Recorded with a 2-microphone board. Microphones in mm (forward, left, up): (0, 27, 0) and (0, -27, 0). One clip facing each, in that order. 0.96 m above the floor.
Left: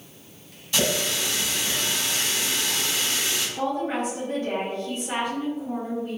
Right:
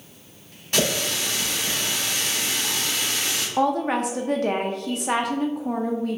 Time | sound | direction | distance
0.7 | a running tap | 50° right (ahead or behind) | 1.7 m
3.6 | a woman speaking | 75° right (ahead or behind) | 0.6 m